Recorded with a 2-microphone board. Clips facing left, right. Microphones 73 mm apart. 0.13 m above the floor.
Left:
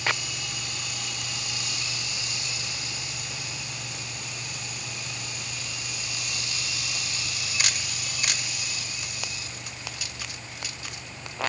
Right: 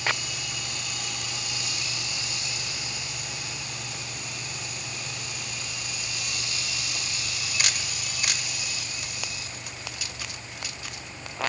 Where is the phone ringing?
No phone ringing in this recording.